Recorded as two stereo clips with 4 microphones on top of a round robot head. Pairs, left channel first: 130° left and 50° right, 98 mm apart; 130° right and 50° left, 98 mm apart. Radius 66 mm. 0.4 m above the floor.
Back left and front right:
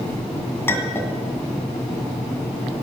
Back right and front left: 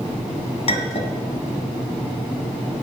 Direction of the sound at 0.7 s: 160° right.